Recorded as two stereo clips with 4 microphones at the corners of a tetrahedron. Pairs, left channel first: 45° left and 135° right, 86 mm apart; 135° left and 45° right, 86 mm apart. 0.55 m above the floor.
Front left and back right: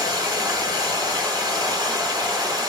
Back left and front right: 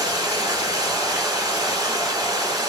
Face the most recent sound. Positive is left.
turn(degrees=-90)